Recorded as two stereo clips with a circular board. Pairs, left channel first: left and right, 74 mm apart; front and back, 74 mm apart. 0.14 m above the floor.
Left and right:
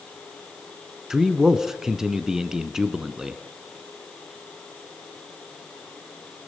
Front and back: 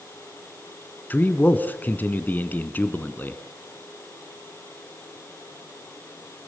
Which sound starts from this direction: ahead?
A man speaking, at 1.1 s.